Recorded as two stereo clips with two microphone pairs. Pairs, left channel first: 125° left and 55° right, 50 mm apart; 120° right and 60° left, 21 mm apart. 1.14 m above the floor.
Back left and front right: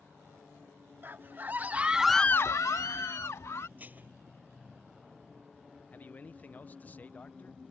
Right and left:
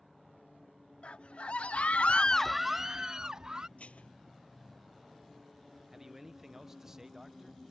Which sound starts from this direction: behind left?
A man speaking, at 5.9 s.